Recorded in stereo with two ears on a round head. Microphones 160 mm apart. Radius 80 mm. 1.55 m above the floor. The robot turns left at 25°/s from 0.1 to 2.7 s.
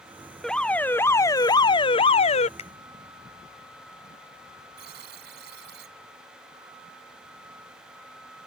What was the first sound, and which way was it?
An alarm, 175° left.